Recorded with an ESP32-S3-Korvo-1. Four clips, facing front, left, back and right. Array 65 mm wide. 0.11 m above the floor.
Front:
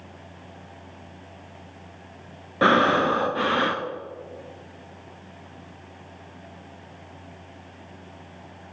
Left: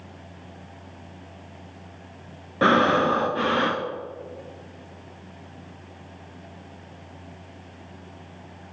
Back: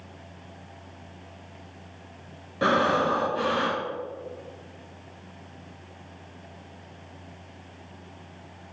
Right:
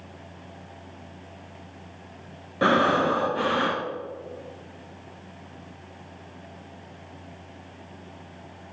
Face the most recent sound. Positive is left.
turn(degrees=20)